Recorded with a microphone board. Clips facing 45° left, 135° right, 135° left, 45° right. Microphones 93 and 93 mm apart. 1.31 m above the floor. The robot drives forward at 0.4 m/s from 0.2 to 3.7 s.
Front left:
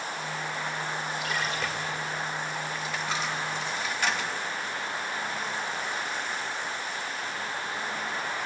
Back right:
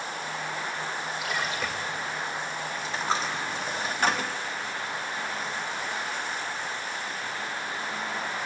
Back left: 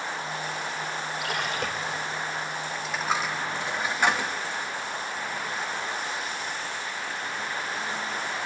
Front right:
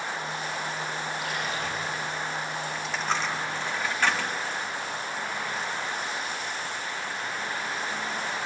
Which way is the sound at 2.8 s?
135° right.